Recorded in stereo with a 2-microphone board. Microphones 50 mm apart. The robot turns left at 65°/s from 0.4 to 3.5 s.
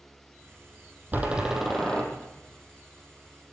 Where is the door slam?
145° right, 4 m; by 2.0 s 155° left, 4 m.